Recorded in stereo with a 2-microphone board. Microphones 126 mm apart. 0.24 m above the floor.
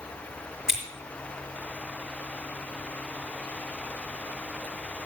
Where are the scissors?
5° right (ahead or behind), 4 m.